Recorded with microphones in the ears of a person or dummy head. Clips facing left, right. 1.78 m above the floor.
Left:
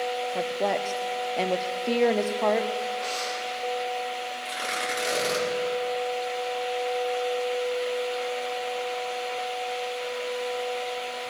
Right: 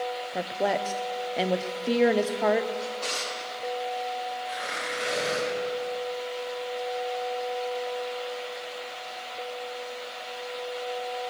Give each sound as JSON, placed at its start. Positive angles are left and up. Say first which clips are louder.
{"t": 0.3, "sound": "a woman speaking", "louder": "right 1 dB", "side_deg": -5, "distance_m": 0.7}
{"t": 2.8, "sound": "a drawer", "louder": "left 3 dB", "side_deg": -20, "distance_m": 5.5}
{"t": 4.5, "sound": "tearing paper", "louder": "left 2 dB", "side_deg": 65, "distance_m": 4.0}